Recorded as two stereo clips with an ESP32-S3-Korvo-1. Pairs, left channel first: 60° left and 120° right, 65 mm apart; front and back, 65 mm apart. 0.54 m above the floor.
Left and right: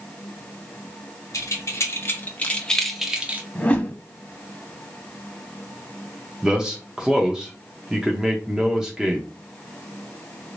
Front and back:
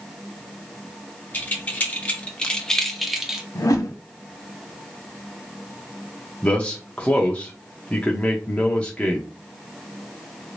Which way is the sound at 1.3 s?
55° left.